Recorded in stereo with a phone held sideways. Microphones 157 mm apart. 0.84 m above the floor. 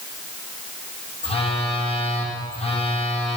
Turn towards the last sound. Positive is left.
turn(degrees=40)  # may be behind; listen again after turning